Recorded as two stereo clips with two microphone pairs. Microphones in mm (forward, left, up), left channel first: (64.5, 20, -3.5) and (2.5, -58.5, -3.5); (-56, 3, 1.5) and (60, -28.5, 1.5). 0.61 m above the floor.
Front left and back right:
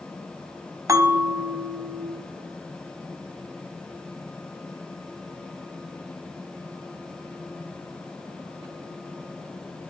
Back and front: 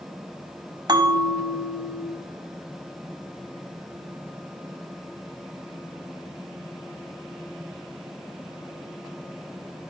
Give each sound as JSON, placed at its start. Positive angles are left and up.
{"t": 0.9, "sound": "a bell", "azimuth_deg": -70, "distance_m": 1.0}